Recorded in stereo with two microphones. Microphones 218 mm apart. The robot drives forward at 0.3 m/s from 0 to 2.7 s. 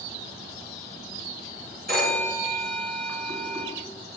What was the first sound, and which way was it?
A phone ringing, 40° right (ahead or behind).